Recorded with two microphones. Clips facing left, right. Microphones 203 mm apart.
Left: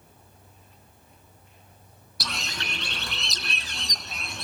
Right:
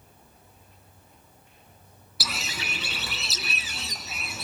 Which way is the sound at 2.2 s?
5° right (ahead or behind).